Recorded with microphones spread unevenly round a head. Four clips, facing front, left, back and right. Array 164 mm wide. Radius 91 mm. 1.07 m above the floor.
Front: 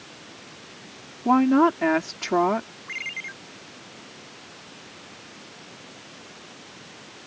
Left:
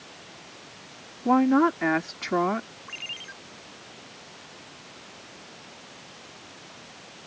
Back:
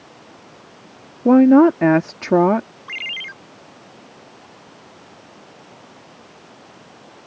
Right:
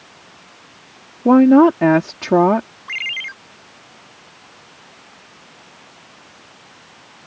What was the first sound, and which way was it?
A woman speaking, 135° right.